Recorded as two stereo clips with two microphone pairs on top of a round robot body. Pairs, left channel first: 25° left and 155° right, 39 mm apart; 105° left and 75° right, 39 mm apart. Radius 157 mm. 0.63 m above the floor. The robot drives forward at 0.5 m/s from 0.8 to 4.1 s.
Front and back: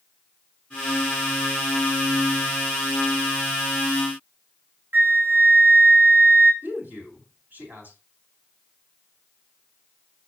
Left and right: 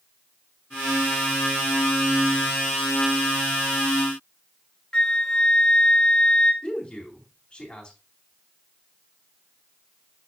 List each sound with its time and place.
4.9 s a flute: 175° left, 0.8 m
6.6 s a man speaking: 170° left, 3.5 m